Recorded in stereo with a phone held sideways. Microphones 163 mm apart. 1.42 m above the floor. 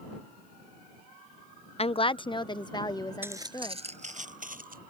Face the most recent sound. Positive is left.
turn(degrees=-60)  # may be behind; listen again after turning